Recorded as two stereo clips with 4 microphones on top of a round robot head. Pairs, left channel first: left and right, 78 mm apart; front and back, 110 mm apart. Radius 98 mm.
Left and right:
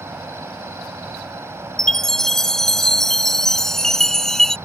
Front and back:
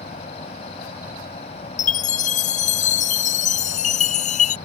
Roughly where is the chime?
Ahead.